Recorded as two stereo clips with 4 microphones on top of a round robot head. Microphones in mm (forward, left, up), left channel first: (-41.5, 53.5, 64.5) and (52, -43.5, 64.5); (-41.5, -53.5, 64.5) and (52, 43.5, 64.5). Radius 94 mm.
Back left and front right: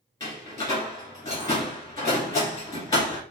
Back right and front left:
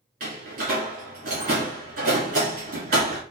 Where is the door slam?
65° left, 2.0 m.